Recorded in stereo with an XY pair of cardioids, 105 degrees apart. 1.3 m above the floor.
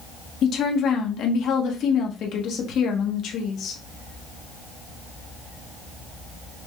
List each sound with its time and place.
0.4 s a woman speaking: 70° left, 1.3 m